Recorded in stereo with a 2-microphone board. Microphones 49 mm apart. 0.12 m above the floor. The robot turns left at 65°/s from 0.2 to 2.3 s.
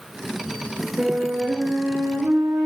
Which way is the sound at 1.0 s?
35° right.